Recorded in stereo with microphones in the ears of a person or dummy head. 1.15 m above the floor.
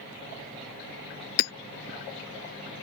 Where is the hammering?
65° left (ahead or behind).